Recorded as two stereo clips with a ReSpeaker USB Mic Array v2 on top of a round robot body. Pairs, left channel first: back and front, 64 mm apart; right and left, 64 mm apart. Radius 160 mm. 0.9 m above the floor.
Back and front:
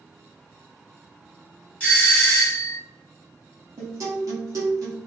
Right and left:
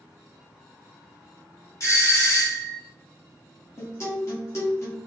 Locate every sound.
1.8 s a doorbell: 110° right, 1.6 m
3.8 s a guitar: 40° right, 0.7 m